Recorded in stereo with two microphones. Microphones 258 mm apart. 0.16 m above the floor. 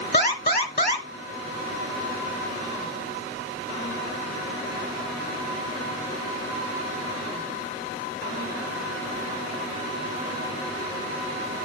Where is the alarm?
35° left (ahead or behind), 2.5 m.